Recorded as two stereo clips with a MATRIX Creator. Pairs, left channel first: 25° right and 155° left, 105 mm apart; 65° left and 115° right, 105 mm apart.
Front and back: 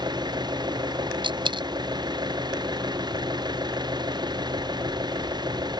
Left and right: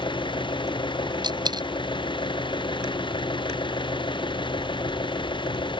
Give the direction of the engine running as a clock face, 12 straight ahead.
8 o'clock.